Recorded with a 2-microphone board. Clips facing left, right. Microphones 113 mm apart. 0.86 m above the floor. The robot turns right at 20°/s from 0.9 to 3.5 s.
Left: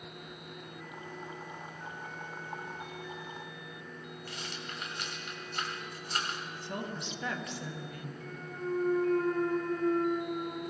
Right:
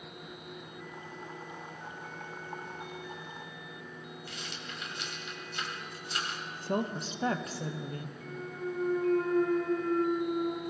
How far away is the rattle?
About 1.3 m.